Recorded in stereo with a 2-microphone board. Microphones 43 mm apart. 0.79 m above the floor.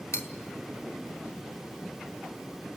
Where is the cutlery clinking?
85° left, 1.4 m.